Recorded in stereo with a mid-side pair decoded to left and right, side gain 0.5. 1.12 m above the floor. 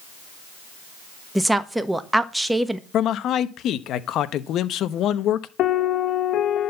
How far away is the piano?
About 0.8 m.